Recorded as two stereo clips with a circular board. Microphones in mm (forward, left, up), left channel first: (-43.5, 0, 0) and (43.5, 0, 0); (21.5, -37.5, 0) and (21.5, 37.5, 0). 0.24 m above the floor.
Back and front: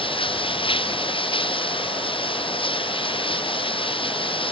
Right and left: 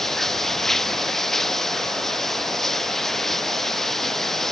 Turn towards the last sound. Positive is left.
turn(degrees=-175)